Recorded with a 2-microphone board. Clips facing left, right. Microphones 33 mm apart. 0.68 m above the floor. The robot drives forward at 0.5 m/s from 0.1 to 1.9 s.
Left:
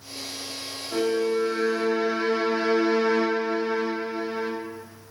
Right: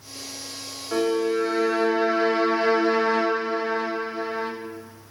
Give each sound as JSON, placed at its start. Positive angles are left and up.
{"t": 0.9, "sound": "a violin", "side_deg": -50, "distance_m": 2.0}